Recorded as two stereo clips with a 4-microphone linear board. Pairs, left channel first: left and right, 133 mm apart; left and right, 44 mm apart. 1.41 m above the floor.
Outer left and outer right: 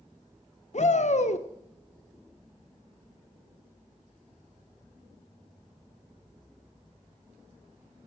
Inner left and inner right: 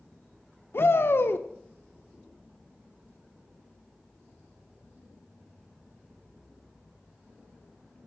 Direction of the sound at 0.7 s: 60° left (ahead or behind).